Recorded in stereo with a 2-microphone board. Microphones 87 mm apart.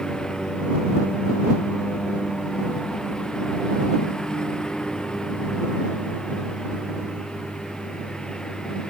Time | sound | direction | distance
0.0 | a lawn mower | 10° left (ahead or behind) | ?